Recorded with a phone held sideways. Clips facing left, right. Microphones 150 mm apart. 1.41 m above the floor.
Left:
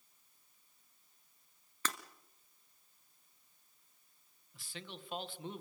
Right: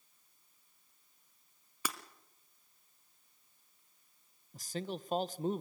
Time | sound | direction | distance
1.9 | breaking glass | 10° right (ahead or behind) | 1.5 m
4.5 | a man speaking | 40° right (ahead or behind) | 0.9 m